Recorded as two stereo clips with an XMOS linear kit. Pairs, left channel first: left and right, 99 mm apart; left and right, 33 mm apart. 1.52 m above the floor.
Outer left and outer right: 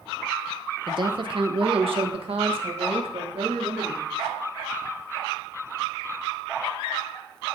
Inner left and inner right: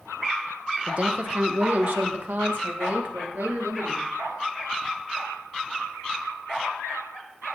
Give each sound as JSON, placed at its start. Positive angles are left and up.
{"t": 0.9, "sound": "a woman speaking", "side_deg": -50, "distance_m": 0.9}